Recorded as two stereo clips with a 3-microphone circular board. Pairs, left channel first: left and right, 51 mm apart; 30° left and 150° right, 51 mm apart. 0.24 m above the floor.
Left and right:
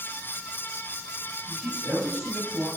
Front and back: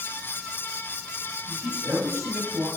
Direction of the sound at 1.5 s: 155° right.